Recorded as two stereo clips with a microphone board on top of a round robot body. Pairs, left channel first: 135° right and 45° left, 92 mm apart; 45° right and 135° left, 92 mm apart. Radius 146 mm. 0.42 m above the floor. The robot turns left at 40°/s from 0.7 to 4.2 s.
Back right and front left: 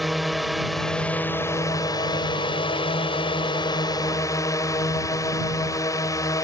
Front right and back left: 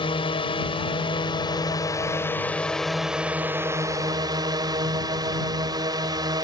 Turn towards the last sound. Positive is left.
turn(degrees=175)